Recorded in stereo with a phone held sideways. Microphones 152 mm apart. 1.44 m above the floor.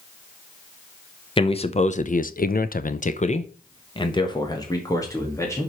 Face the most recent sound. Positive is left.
turn(degrees=20)  # may be behind; listen again after turning